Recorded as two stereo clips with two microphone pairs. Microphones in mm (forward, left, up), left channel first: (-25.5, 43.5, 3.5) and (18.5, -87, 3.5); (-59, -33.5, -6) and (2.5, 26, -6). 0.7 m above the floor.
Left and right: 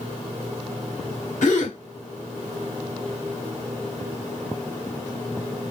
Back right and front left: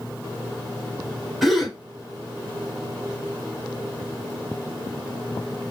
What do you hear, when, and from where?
1.4 s a gasp: 135° left, 1.3 m